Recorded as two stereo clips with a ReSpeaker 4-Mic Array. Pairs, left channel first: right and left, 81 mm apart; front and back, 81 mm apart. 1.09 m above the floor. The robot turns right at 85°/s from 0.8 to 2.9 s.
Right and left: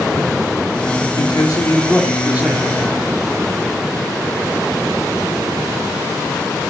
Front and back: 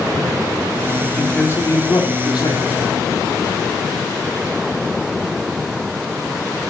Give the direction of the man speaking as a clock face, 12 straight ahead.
3 o'clock.